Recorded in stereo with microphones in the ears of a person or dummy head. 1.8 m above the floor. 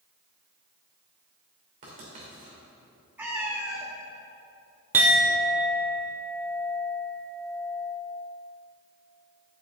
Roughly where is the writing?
Right.